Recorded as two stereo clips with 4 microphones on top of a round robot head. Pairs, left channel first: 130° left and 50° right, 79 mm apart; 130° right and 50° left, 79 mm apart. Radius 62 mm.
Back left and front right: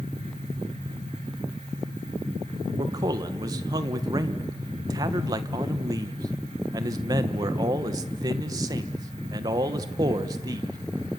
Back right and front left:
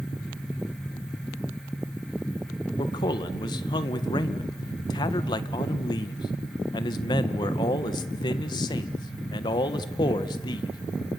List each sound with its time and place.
2.8 s a man speaking: 95° right, 1.5 m